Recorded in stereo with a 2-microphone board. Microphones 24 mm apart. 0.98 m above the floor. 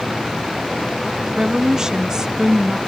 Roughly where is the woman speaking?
Right.